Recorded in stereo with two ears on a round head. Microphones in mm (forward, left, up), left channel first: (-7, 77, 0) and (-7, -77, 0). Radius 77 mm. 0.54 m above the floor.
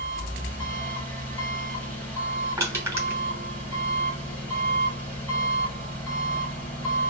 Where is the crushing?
15° right (ahead or behind), 2.5 m.